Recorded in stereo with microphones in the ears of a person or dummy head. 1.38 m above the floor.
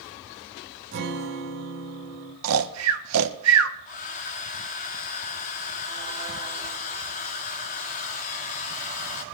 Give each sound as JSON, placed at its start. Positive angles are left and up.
{"t": 0.9, "sound": "a guitar", "side_deg": -50, "distance_m": 1.9}
{"t": 2.4, "sound": "snoring", "side_deg": -80, "distance_m": 1.3}
{"t": 3.9, "sound": "a hair dryer", "side_deg": 35, "distance_m": 1.5}